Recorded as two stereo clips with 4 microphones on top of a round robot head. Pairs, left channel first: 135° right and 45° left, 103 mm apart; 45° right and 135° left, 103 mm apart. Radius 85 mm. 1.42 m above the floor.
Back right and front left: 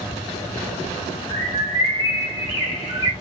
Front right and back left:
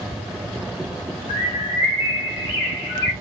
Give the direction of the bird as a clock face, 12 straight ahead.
3 o'clock.